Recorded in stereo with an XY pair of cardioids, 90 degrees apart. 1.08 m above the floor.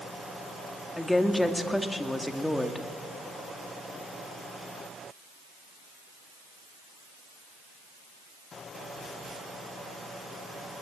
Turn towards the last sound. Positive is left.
turn(degrees=10)